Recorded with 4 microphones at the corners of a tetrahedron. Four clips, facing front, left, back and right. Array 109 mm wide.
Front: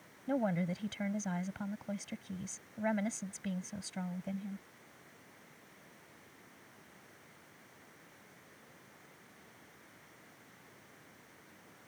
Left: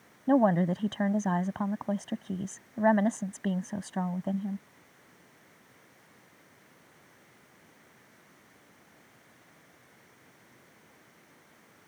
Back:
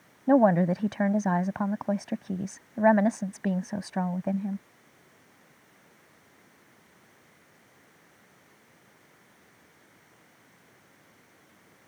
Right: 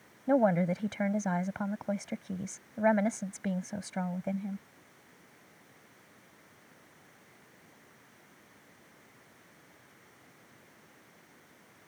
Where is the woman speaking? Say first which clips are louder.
Left 2 dB, back 14 dB; 165° left.